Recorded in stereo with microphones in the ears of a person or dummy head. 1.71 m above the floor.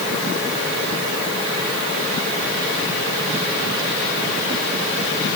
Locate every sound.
Only background noise.